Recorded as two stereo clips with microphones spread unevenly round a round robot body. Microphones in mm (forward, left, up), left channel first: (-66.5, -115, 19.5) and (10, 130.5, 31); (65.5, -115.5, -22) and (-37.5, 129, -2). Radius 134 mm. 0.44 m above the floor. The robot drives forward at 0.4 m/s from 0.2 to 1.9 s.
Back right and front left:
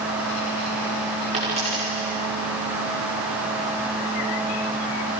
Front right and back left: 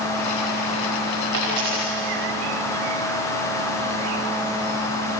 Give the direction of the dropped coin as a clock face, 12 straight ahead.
7 o'clock.